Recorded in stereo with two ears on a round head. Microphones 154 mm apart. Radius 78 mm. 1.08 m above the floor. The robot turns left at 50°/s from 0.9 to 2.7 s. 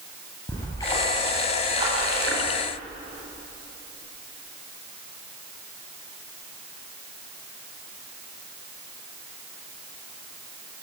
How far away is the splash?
About 9 m.